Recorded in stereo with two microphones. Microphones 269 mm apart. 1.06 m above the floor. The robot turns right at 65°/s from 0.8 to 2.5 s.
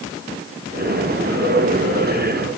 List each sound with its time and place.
Only background noise.